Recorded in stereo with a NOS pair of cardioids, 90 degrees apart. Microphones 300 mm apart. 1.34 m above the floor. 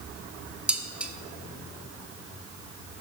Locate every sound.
0.7 s dishes clattering: 5° right, 1.0 m